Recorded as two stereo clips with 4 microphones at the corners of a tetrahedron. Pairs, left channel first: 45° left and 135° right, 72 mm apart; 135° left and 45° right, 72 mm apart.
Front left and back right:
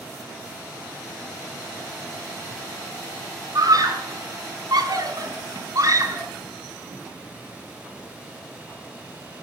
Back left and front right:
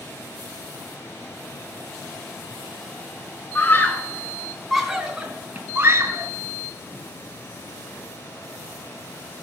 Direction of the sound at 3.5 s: 165° right.